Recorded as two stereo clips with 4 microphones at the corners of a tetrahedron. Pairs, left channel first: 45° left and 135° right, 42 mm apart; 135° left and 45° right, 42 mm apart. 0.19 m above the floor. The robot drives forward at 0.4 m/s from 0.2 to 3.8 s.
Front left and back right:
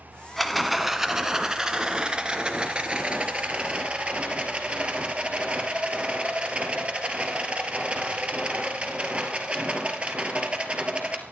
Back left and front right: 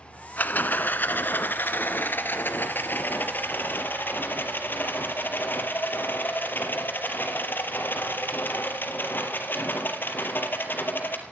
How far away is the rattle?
About 0.7 m.